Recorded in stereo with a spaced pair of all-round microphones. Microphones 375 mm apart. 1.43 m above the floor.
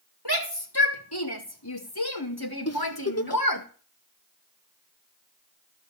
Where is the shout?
90° left, 3.5 m; by 3.6 s 60° left (ahead or behind), 1.8 m.